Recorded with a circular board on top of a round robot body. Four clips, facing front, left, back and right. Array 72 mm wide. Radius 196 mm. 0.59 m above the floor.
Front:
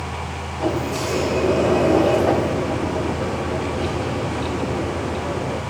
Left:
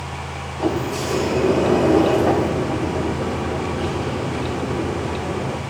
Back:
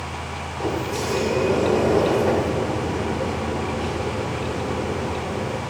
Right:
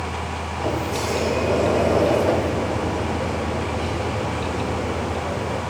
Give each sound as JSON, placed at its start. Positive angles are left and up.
{"t": 0.6, "sound": "a sliding door", "azimuth_deg": 65, "distance_m": 6.5}